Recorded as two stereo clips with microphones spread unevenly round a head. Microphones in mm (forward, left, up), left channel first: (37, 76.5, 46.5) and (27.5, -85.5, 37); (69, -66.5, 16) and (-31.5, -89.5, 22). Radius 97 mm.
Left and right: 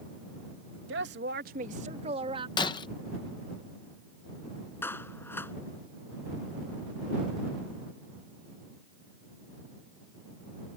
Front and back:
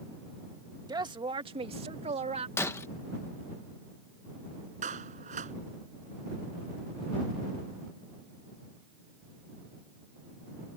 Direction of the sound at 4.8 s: 165° left.